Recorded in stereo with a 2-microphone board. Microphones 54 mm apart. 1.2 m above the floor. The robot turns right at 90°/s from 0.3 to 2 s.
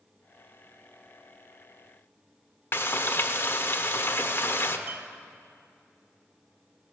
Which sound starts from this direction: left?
Frying, at 2.7 s.